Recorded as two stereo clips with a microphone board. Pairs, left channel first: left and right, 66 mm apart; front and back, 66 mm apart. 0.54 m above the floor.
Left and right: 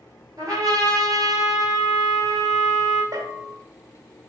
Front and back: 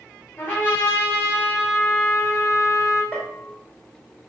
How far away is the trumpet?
About 3 m.